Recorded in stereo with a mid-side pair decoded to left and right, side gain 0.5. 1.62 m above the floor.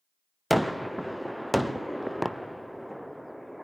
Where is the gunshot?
Straight ahead, 0.7 m.